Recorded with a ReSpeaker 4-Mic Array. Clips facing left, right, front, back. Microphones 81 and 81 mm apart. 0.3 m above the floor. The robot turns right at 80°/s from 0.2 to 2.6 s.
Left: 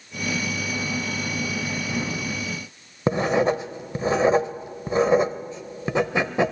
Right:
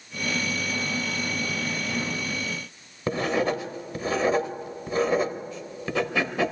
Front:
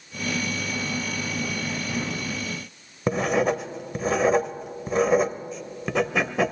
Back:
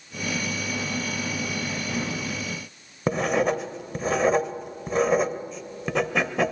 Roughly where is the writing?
Left.